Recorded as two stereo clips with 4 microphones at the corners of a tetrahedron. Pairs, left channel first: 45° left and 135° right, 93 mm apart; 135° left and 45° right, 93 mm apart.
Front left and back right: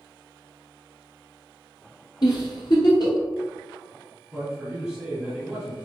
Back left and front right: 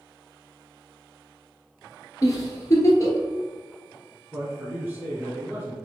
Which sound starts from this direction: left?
A giggle, at 2.2 s.